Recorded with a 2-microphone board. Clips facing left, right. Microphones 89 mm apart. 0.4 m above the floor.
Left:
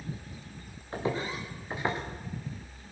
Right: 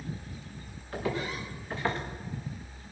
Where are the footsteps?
30° left (ahead or behind), 5 m; by 2.0 s 10° left (ahead or behind), 3.5 m.